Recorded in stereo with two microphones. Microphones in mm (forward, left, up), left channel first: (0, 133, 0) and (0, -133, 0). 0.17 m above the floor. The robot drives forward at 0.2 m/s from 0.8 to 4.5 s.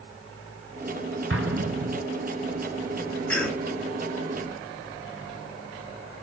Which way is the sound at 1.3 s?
55° right (ahead or behind).